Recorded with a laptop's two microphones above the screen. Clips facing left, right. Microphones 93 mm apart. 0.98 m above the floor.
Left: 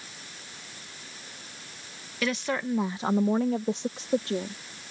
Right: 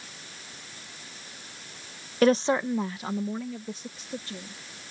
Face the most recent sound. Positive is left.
turn(degrees=75)  # may be behind; listen again after turning